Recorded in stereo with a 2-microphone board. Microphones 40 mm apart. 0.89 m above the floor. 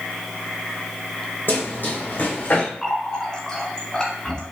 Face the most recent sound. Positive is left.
turn(degrees=15)  # may be behind; listen again after turning